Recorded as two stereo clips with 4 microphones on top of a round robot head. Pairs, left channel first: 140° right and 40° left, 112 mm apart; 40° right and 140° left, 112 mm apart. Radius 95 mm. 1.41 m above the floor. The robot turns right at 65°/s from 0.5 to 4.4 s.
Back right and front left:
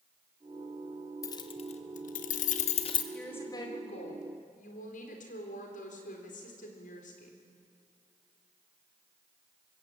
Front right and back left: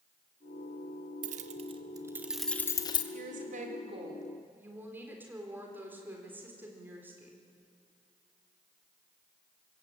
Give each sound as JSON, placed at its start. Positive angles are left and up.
{"t": 1.2, "sound": "keys jangling", "azimuth_deg": 155, "distance_m": 1.0}
{"t": 3.1, "sound": "a woman speaking", "azimuth_deg": 135, "distance_m": 4.0}